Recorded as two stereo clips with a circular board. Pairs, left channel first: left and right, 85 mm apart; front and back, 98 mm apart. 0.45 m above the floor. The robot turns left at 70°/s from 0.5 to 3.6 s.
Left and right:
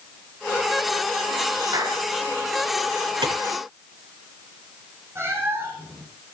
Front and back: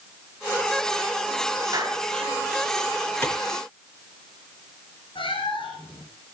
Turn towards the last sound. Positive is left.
turn(degrees=-30)